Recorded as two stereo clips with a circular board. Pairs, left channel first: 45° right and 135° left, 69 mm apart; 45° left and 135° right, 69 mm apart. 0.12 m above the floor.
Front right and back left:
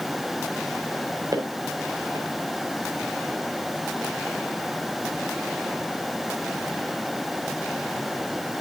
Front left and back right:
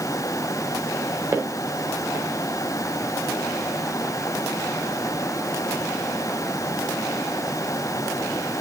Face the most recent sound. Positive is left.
turn(degrees=170)